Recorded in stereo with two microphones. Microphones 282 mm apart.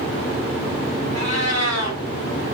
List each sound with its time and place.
1.1 s a cat meowing: 70° right (ahead or behind), 1.8 m